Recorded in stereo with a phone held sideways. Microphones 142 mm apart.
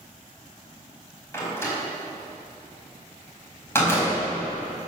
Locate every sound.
1.3 s a door slam: 15° left (ahead or behind), 4.5 m